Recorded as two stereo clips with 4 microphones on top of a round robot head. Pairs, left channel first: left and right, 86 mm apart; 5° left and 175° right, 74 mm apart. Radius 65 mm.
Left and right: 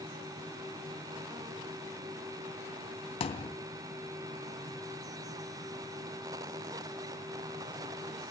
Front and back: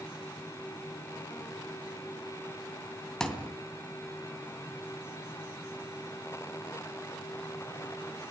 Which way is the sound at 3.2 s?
85° left.